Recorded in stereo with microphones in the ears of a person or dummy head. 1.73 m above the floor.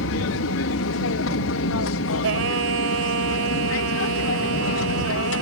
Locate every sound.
0.0 s an aircraft: 65° left (ahead or behind)
2.2 s singing: 85° right